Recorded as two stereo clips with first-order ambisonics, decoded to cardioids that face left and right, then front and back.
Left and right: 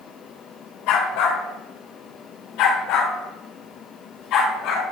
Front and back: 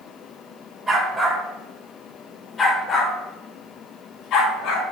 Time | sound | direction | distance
0.9 | a dog barking | 105° left | 2 m